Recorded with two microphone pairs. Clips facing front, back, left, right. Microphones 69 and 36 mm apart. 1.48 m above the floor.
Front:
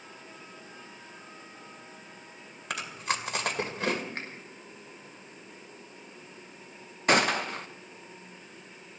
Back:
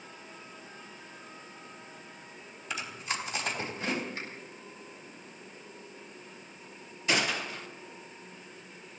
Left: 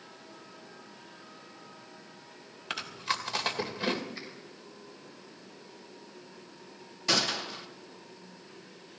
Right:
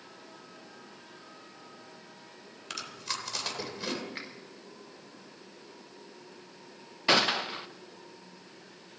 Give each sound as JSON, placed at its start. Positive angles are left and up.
{"t": 2.7, "sound": "chewing", "azimuth_deg": 25, "distance_m": 2.0}
{"t": 4.2, "sound": "a finger snap", "azimuth_deg": -40, "distance_m": 4.5}
{"t": 7.1, "sound": "a gunshot", "azimuth_deg": -30, "distance_m": 0.8}